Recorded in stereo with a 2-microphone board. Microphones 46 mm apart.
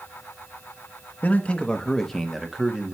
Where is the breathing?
No breathing in this recording.